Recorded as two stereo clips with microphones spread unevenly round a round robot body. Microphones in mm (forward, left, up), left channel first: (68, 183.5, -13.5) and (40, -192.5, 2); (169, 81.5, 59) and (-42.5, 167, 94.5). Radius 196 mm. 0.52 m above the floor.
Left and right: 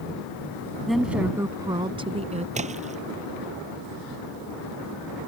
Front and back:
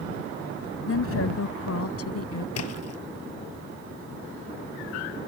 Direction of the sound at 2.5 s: 20° right.